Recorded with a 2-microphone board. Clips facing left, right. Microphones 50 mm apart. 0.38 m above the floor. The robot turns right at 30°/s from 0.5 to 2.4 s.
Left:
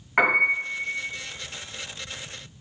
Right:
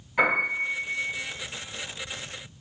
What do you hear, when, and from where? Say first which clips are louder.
0.2 s a piano: left 3 dB; 60° left (ahead or behind), 1.1 m; by 1.0 s 45° left (ahead or behind), 1.1 m